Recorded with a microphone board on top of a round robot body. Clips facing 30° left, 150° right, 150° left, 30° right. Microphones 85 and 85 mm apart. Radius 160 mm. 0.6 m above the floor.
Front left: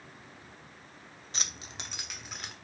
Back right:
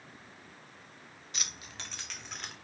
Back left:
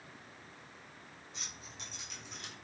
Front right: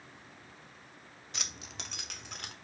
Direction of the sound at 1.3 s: 25° right.